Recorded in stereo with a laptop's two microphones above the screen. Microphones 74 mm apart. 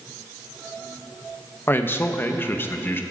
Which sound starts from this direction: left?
A man speaking, at 1.7 s.